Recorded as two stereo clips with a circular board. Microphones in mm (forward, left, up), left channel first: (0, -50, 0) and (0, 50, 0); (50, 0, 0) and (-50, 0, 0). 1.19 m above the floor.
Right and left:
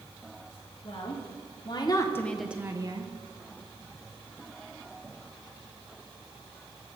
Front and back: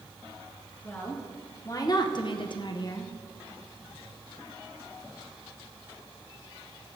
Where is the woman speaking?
65° right, 1.7 m; by 3.1 s 60° left, 0.9 m.